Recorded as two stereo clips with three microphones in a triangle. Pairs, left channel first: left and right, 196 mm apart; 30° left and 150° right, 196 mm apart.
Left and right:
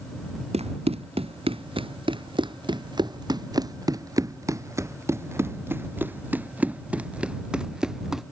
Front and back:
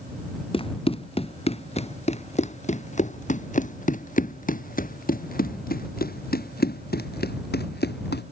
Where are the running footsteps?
30° right; by 8.2 s straight ahead.